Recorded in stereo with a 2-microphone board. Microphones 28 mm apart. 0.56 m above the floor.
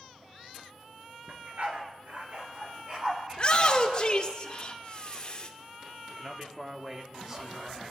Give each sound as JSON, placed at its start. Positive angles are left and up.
{"t": 1.3, "sound": "a dog barking", "side_deg": -65, "distance_m": 1.9}
{"t": 3.3, "sound": "a shout", "side_deg": 35, "distance_m": 1.8}
{"t": 6.1, "sound": "a man speaking", "side_deg": -20, "distance_m": 1.3}